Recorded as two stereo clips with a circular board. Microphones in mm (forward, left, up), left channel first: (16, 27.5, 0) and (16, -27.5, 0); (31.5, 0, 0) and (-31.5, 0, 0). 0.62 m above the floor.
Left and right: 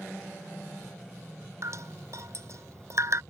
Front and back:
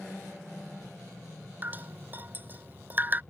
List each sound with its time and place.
1.6 s dripping: 120° right